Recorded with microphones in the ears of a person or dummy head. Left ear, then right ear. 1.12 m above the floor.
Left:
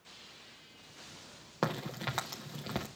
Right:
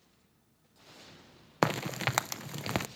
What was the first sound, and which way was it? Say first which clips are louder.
A crack: right 6 dB; 50° right (ahead or behind).